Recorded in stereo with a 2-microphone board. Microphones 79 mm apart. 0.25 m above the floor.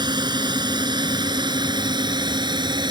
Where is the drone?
60° right (ahead or behind); by 2.9 s 65° right (ahead or behind).